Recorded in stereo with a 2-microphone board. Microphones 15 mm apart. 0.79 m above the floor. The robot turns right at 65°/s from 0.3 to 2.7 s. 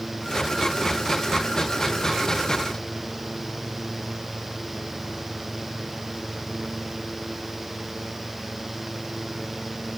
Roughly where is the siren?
I don't hear a siren.